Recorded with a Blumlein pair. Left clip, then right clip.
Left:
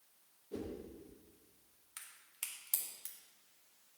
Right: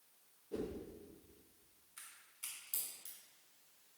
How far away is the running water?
No running water in this recording.